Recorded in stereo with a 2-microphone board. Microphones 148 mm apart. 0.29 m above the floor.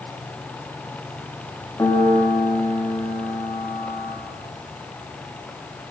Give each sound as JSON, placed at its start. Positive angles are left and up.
{"t": 1.8, "sound": "a piano", "side_deg": 20, "distance_m": 4.5}